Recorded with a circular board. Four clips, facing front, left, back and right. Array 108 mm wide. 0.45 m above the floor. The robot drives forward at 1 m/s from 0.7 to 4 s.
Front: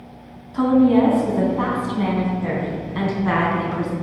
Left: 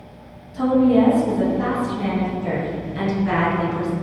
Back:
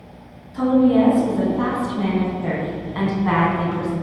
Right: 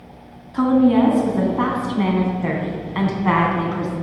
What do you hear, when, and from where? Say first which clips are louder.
0.5 s a woman speaking: right 1 dB, front 1 dB; 60° right, 4 m; by 3.9 s 115° right, 3.5 m